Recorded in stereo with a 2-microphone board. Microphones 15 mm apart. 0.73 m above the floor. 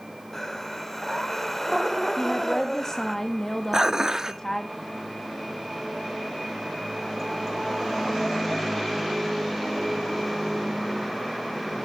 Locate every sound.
0.3 s breathing: 20° left (ahead or behind), 1.3 m
2.2 s a woman speaking: 25° left (ahead or behind), 1.1 m
3.7 s dishes clattering: 35° right (ahead or behind), 0.7 m